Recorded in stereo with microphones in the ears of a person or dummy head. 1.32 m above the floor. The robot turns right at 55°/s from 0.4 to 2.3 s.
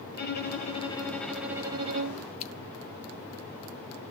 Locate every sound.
0.1 s a violin: 130° left, 2.5 m; by 2.3 s 130° right, 2.5 m
2.4 s scissors: 35° left (ahead or behind), 1.0 m